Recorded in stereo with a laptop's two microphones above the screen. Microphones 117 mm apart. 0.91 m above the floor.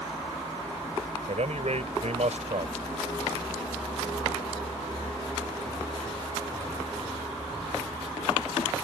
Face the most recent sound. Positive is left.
turn(degrees=-70)  # may be behind; listen again after turning